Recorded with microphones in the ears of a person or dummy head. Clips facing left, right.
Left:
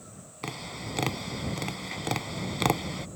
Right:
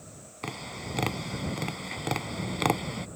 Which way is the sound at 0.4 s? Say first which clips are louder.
Even; centre (ahead or behind).